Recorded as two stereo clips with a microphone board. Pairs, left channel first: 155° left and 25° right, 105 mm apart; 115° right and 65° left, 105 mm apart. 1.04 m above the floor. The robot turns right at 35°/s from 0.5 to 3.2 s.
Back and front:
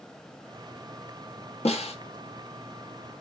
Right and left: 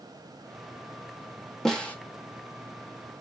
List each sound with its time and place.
1.6 s a snare drum: 160° left, 1.1 m; by 1.9 s 170° left, 1.1 m